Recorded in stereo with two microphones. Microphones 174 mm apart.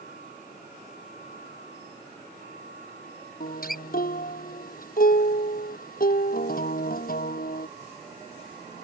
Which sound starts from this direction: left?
A guitar, at 3.4 s.